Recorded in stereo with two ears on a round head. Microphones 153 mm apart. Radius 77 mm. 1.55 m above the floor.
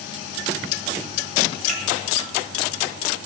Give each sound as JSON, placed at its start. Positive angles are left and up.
{"t": 1.7, "sound": "a finger snap", "side_deg": -45, "distance_m": 1.5}